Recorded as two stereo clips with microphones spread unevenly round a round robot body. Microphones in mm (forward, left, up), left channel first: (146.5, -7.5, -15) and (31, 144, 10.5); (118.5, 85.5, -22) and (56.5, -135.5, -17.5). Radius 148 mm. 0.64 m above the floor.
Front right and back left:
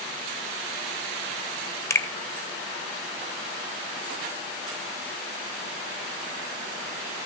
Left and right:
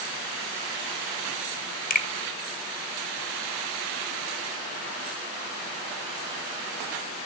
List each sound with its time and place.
1.9 s a finger snap: 25° left, 2.0 m